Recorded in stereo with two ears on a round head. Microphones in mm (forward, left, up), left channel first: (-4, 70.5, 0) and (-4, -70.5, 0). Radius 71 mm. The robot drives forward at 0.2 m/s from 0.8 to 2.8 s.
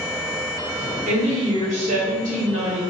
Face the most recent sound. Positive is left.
turn(degrees=-50)  # may be behind; listen again after turning